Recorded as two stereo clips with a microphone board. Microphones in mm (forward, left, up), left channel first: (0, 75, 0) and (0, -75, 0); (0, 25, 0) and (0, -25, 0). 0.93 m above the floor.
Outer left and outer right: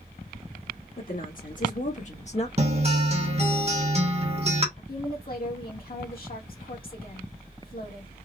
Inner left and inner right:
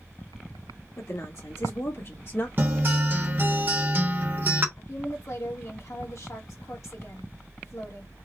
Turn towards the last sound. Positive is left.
turn(degrees=65)  # may be behind; listen again after turning